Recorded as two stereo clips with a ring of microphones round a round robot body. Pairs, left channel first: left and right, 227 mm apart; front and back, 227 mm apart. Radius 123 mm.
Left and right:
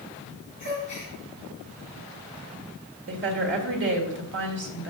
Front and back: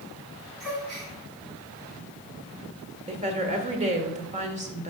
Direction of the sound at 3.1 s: 125° right.